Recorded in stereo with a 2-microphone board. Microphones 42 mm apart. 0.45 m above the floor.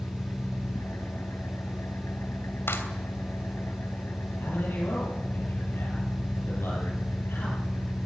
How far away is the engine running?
About 3 m.